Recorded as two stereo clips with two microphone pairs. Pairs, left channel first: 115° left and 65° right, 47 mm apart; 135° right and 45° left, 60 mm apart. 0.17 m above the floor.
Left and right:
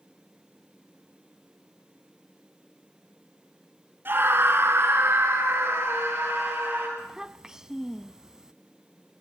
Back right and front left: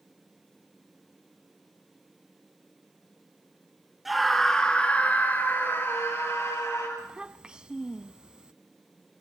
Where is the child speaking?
5° right, 0.6 m.